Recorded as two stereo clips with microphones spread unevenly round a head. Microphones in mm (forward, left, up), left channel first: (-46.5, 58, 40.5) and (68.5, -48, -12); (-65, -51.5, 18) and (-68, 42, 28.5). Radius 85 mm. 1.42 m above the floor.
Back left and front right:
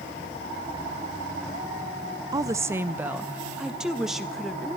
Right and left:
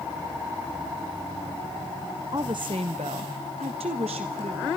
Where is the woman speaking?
25° left, 0.7 m; by 4.7 s 50° left, 1.8 m.